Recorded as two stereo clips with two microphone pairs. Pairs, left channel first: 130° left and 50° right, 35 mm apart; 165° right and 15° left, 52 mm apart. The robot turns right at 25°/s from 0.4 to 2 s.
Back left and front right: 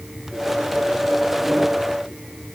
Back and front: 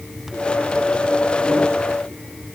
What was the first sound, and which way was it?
Only background noise.